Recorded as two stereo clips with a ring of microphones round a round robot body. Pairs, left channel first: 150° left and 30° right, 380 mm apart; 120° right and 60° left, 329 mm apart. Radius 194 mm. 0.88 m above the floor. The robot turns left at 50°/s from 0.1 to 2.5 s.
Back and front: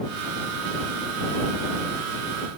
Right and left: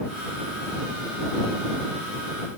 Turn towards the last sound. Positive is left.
No sound to turn to.